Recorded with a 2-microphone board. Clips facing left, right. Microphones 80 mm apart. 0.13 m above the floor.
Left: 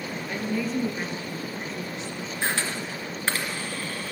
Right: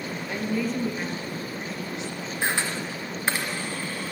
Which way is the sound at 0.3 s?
10° right (ahead or behind).